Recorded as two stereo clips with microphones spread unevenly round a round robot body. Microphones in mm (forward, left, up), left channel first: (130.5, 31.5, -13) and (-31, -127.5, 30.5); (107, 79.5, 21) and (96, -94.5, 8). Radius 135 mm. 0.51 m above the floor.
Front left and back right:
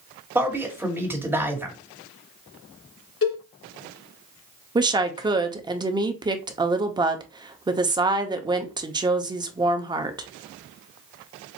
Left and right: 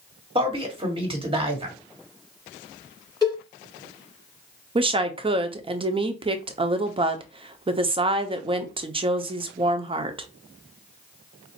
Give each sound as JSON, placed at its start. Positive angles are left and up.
{"t": 0.3, "sound": "a man speaking", "azimuth_deg": -50, "distance_m": 2.0}
{"t": 3.2, "sound": "a cowbell", "azimuth_deg": 20, "distance_m": 3.0}
{"t": 4.8, "sound": "a woman speaking", "azimuth_deg": -60, "distance_m": 0.8}